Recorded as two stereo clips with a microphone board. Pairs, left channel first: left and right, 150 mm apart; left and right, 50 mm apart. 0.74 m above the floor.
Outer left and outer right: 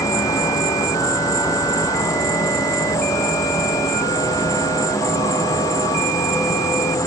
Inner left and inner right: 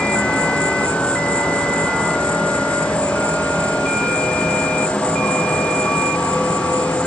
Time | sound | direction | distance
0.0 | an insect | 20° left (ahead or behind) | 1.1 m